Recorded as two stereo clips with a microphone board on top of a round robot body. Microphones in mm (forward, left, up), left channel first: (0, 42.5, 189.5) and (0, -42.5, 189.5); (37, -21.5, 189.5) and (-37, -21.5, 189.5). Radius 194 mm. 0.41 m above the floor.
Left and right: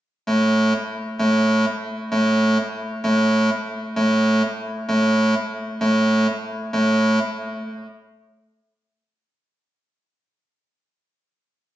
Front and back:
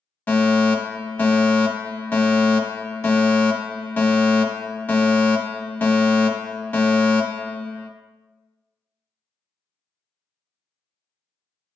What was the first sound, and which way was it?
A fire alarm, 10° left.